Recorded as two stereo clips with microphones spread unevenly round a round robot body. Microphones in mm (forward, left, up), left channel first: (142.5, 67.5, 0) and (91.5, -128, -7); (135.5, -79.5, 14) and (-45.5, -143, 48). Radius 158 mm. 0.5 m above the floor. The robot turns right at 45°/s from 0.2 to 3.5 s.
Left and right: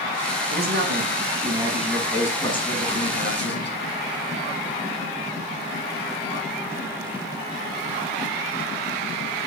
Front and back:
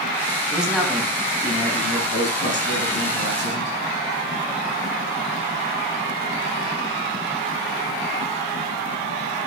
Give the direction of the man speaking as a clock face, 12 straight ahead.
3 o'clock.